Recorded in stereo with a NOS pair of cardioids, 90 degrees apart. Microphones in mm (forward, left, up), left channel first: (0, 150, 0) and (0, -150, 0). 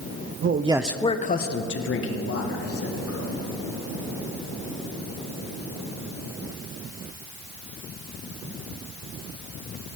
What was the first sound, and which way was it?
A man speaking, 45° right.